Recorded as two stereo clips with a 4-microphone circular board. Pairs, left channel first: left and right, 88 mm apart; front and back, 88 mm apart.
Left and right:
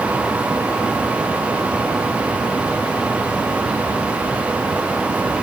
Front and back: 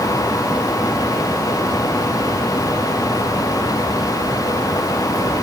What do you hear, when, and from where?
Only background noise.